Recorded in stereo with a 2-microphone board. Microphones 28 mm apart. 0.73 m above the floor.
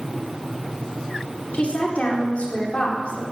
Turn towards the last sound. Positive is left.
turn(degrees=60)  # may be behind; listen again after turning